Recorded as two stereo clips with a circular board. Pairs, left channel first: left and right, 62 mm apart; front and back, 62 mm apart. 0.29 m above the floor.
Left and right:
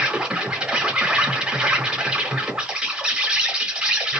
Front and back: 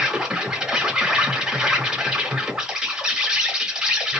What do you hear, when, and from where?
0.0 s an insect: 135° right, 0.8 m